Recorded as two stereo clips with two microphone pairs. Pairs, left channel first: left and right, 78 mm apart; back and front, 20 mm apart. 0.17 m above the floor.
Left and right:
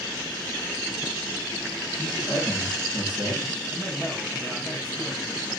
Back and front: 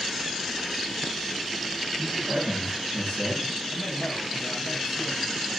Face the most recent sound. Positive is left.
turn(degrees=150)